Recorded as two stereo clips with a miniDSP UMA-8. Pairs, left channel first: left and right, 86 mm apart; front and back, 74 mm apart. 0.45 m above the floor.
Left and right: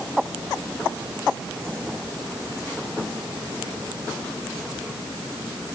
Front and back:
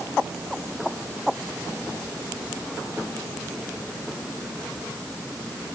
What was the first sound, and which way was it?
Only background noise.